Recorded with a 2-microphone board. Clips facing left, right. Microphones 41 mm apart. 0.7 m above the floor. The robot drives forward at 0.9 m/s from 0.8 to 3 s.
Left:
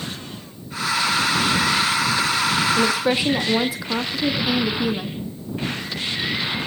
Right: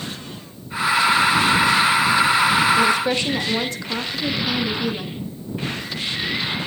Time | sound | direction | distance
2.8 | a woman speaking | 10° left (ahead or behind) | 1.1 m